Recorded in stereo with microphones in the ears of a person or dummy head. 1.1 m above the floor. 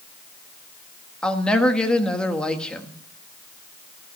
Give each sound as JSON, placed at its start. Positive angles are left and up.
{"t": 1.2, "sound": "a woman speaking", "side_deg": 5, "distance_m": 1.4}